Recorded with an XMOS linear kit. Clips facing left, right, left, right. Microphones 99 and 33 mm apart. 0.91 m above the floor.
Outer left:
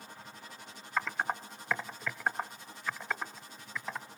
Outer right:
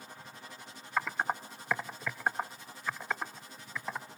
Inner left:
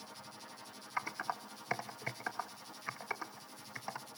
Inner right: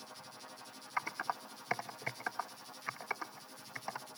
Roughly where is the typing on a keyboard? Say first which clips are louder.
Outer right 1 dB, inner right 1 dB; centre.